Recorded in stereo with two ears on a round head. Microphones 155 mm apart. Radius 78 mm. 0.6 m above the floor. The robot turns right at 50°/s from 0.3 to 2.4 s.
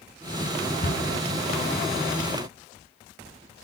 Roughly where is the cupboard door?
Left.